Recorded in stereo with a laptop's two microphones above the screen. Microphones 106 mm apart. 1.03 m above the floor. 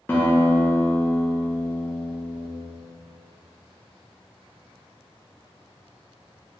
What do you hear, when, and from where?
0.1 s a guitar: 20° left (ahead or behind), 0.7 m